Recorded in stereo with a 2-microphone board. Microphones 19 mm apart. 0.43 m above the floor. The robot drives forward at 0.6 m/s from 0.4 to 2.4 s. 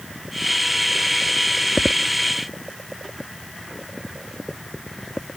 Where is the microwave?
I don't hear a microwave.